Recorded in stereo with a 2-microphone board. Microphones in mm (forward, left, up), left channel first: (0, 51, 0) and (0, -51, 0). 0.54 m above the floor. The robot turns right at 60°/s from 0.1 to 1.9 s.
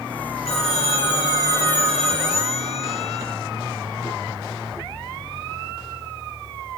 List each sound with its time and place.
0.5 s a phone ringing: 85° left, 9.5 m; by 3.2 s 175° left, 9.5 m